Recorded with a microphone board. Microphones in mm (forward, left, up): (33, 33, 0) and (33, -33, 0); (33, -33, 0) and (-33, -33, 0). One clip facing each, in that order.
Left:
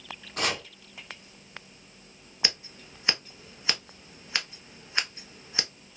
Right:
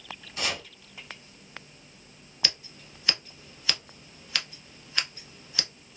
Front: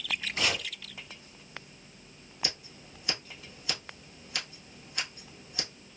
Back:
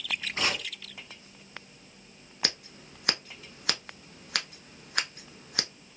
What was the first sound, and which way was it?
Chopping, 125° left.